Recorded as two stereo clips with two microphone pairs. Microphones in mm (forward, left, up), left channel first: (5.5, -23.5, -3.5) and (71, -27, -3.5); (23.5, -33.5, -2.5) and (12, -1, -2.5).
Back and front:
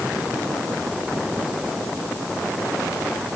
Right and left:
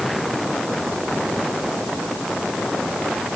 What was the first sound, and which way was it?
Only background noise.